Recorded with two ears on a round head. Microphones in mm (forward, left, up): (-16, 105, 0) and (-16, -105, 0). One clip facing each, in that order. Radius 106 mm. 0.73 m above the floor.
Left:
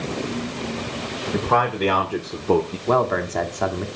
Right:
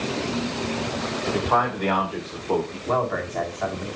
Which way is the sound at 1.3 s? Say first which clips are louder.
Left 5 dB; 45° left (ahead or behind).